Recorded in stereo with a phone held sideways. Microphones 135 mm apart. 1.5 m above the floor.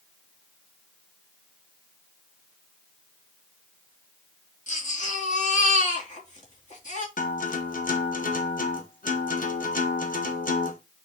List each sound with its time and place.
4.7 s a baby crying: 70° left (ahead or behind), 3 m
7.2 s a guitar: 85° left, 1.4 m